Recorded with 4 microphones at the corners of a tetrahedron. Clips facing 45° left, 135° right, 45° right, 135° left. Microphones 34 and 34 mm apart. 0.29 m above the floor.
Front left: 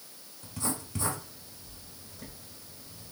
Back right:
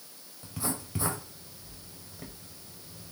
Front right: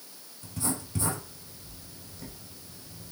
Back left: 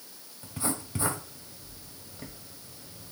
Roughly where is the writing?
Behind.